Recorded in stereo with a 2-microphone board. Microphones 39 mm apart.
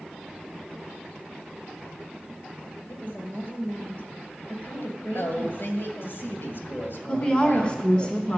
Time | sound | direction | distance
2.9 | a woman speaking | 55° left (ahead or behind) | 3 m
5.1 | a woman speaking | 60° left (ahead or behind) | 2.5 m
7.1 | a woman speaking | 25° left (ahead or behind) | 1.1 m